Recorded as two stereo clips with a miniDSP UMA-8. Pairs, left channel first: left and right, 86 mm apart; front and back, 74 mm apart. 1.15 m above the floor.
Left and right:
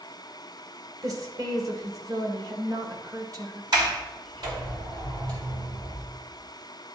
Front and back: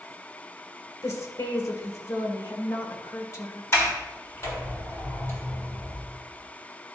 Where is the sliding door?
55° right, 1.9 m.